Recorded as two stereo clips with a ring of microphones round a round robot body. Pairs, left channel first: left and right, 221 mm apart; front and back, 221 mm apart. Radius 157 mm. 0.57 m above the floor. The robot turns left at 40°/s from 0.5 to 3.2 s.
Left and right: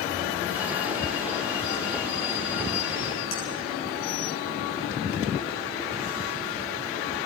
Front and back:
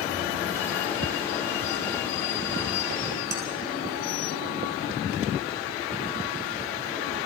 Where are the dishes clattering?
140° left, 4.5 m.